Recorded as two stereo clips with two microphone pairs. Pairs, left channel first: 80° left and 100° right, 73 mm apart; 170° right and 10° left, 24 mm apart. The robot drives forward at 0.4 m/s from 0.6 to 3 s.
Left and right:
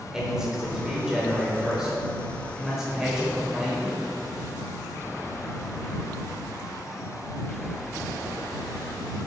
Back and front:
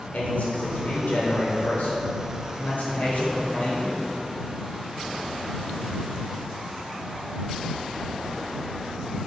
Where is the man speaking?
Straight behind, 4 m.